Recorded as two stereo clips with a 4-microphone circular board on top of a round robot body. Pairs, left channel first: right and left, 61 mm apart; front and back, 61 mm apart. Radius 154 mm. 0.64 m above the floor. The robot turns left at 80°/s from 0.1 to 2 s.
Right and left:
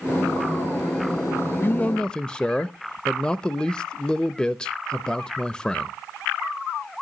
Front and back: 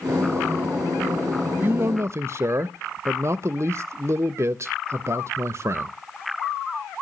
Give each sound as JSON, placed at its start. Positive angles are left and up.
{"t": 1.6, "sound": "a man speaking", "azimuth_deg": -130, "distance_m": 0.6}